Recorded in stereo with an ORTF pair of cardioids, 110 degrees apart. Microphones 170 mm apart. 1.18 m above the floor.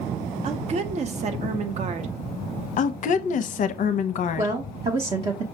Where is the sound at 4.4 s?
35° right, 0.8 m.